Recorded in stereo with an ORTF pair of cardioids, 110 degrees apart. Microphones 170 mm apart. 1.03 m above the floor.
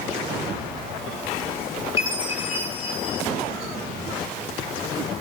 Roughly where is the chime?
Ahead left.